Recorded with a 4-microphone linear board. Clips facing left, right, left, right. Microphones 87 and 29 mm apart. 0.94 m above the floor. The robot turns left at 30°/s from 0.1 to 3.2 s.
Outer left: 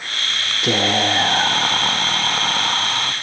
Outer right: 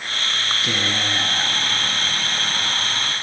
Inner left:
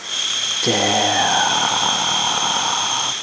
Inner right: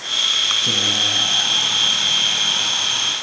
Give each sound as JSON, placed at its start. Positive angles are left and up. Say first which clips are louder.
{"t": 0.6, "sound": "whispering", "louder": "outer left 10 dB, even", "azimuth_deg": 110, "distance_m": 1.2}